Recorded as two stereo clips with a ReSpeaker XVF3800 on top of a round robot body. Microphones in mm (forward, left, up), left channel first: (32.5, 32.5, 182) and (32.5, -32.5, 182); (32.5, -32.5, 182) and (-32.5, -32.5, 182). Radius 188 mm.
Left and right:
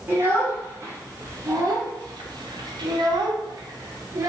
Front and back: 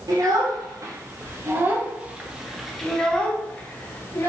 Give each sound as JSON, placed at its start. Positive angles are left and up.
{"t": 0.1, "sound": "a child speaking", "azimuth_deg": -155, "distance_m": 1.4}